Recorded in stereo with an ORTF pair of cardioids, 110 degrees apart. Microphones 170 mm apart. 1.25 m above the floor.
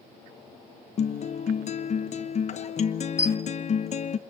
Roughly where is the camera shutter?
Ahead.